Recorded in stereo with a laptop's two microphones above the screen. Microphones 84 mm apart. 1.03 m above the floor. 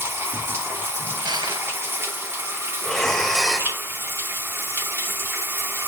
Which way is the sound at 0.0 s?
30° right (ahead or behind).